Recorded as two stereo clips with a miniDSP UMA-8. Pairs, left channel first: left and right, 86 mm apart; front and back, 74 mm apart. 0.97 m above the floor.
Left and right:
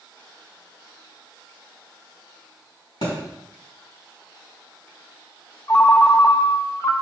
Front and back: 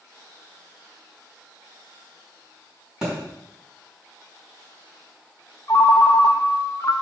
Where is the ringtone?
40° left, 0.7 m.